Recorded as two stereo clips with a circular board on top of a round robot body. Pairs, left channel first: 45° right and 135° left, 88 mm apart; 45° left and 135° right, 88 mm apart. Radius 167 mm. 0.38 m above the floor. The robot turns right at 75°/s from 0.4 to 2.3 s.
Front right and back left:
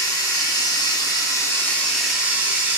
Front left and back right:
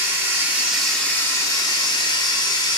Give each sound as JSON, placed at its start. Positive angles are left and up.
{"t": 0.0, "sound": "running water", "azimuth_deg": -80, "distance_m": 0.9}